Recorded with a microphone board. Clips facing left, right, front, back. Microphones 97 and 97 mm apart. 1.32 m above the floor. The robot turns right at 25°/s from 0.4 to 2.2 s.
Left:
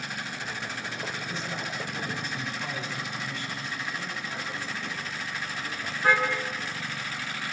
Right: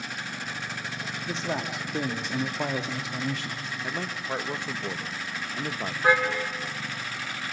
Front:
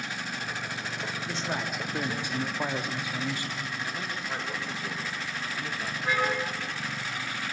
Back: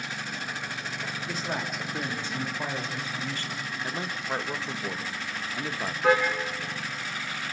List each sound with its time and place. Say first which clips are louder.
1.3 s a man speaking: right 4 dB, back 1 dB; 100° right, 2.5 m; by 3.6 s 75° right, 2.5 m
3.8 s a man speaking: right 3 dB, back 2 dB; 120° right, 1.6 m
6.0 s a car horn: right 2 dB, back 7 dB; 165° right, 6 m